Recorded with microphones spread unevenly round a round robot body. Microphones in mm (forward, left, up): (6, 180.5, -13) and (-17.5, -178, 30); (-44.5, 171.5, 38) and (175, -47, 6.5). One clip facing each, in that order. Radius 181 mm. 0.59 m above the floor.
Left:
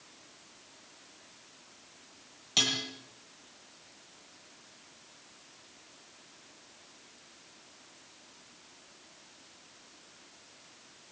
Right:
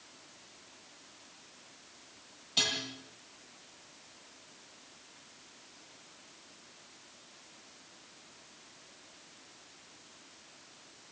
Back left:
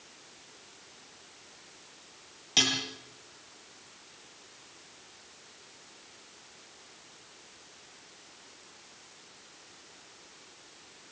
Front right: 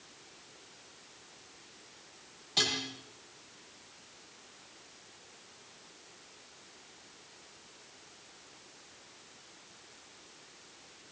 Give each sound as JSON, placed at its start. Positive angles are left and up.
{"t": 2.6, "sound": "dishes clattering", "azimuth_deg": 95, "distance_m": 9.0}